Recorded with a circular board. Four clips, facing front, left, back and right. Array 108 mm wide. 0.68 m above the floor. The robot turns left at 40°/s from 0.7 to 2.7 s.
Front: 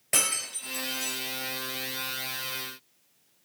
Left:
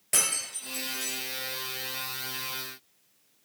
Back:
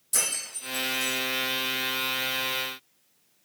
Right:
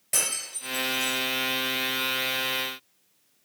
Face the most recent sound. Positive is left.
turn(degrees=-70)